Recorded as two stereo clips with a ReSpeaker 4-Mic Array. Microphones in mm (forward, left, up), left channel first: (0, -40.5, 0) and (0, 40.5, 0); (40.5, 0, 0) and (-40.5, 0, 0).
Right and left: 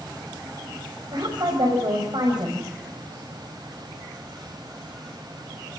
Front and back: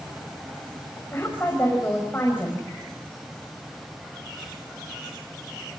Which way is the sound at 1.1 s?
65° left.